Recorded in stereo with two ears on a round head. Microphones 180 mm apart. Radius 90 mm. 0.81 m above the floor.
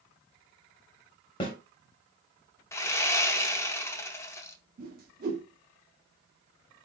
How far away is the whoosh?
About 1.3 m.